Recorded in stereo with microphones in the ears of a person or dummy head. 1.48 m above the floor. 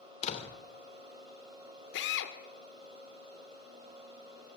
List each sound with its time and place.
0.2 s a door slam: 35° left (ahead or behind), 3 m
1.9 s a drill: 70° left (ahead or behind), 2.5 m